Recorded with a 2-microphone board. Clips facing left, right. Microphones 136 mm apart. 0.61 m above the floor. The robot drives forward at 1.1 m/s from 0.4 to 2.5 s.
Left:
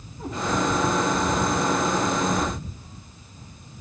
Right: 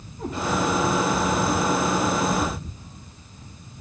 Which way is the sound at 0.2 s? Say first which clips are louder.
Right 2 dB; 35° right (ahead or behind).